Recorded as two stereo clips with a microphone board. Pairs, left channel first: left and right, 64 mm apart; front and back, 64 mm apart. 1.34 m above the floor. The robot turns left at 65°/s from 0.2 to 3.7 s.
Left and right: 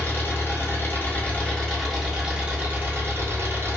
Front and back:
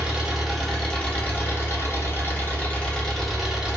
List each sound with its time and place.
0.0 s an engine running: 115° left, 0.8 m; by 3.8 s 115° right, 0.8 m